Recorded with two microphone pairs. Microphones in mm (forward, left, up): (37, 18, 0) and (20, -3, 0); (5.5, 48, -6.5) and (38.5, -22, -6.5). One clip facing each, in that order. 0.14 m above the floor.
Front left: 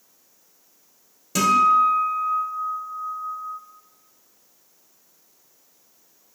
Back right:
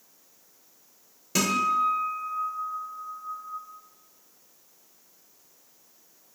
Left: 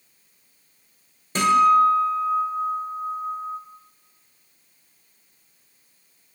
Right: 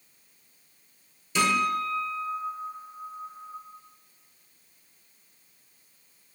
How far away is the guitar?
About 0.9 m.